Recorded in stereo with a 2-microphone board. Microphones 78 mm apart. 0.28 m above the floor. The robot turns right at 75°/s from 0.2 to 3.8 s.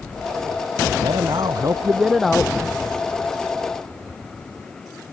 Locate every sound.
1.0 s a man speaking: 95° right; by 2.5 s 20° left